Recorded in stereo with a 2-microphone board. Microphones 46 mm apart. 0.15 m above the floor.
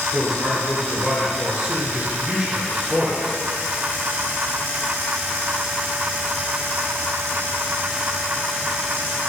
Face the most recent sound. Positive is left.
turn(degrees=-15)  # may be behind; listen again after turning